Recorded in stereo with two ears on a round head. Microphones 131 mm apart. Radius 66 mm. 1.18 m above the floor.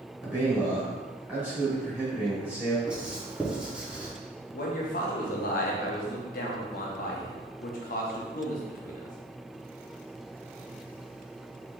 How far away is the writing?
About 0.7 m.